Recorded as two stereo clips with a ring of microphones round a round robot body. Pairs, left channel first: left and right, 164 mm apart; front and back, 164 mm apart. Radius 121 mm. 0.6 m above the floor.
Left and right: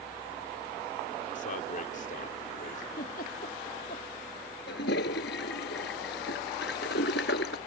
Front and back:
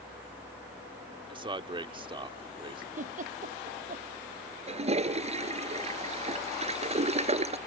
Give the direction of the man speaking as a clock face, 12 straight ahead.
8 o'clock.